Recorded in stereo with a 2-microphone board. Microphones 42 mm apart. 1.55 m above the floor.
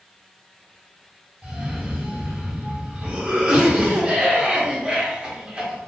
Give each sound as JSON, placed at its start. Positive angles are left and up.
{"t": 1.4, "sound": "a cough", "side_deg": -20, "distance_m": 1.1}